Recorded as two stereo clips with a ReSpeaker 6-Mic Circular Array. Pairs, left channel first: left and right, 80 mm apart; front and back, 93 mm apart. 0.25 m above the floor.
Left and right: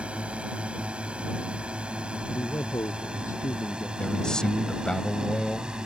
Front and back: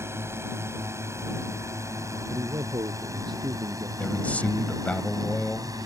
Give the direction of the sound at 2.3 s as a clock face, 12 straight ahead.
7 o'clock.